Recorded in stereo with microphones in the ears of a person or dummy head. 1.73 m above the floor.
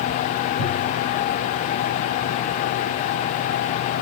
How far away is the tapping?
About 3.5 m.